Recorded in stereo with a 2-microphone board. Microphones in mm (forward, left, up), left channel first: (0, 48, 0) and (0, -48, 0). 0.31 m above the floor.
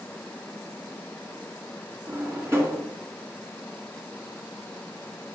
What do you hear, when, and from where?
2.1 s a drawer: 25° right (ahead or behind), 2.5 m